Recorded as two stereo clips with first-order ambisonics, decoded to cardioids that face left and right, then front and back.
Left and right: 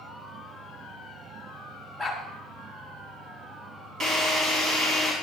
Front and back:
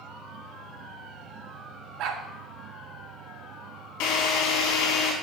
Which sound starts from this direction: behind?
A dog barking, at 2.0 s.